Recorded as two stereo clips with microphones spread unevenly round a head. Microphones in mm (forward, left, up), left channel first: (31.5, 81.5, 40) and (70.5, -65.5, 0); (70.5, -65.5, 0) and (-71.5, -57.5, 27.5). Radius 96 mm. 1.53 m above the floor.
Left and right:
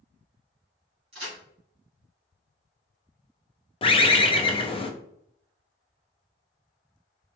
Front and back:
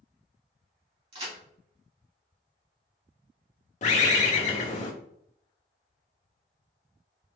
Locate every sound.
1.1 s a crack: 145° right, 2.0 m
3.8 s a bird: 40° left, 0.5 m